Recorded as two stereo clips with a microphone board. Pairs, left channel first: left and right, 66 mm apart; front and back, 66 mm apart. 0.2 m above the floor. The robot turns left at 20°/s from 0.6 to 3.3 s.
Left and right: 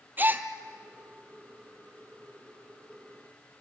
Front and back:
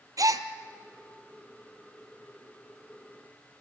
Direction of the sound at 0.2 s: 150° right.